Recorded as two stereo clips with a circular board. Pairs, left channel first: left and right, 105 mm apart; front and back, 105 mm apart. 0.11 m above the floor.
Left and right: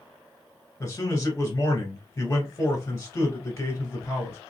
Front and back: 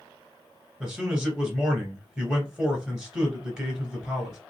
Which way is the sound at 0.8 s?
100° left.